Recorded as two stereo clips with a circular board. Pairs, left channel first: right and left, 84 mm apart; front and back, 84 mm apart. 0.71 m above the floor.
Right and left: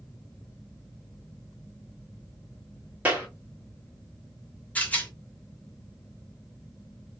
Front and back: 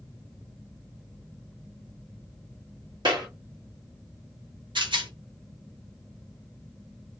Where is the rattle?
160° right, 0.8 m.